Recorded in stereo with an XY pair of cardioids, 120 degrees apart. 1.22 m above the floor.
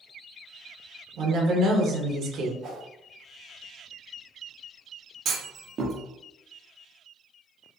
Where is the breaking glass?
No breaking glass in this recording.